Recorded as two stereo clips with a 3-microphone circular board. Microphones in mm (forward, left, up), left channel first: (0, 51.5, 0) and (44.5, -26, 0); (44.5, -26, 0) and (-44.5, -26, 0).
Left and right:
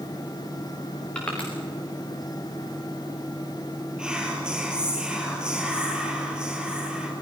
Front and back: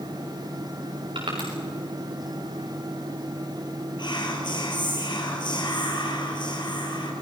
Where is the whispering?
20° left, 3.5 m.